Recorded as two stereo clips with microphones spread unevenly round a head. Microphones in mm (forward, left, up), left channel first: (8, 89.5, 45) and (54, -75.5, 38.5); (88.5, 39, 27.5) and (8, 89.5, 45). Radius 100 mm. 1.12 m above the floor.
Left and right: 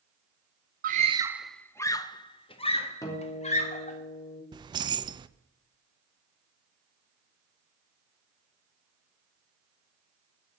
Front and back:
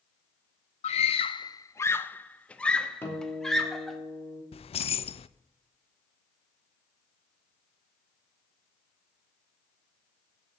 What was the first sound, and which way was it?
A scream, 35° right.